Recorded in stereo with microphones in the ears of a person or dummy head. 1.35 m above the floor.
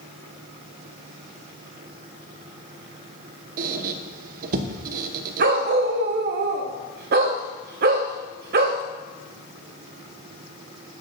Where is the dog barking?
45° right (ahead or behind), 1.0 m.